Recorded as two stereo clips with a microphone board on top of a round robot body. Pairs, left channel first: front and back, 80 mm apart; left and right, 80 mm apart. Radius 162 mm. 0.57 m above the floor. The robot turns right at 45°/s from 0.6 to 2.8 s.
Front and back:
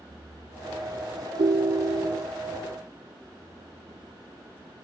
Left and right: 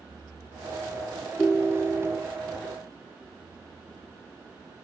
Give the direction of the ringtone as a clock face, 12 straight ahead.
6 o'clock.